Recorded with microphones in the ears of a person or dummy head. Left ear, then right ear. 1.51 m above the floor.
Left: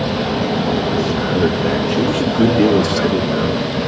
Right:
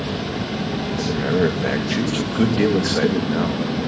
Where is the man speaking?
80° right, 2.0 m.